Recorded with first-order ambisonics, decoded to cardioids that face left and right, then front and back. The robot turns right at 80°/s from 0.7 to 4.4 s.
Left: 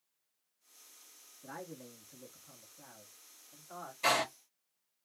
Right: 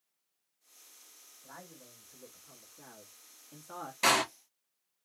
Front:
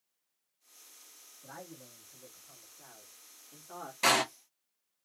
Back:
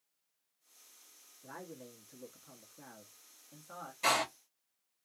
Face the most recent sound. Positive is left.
turn(degrees=-20)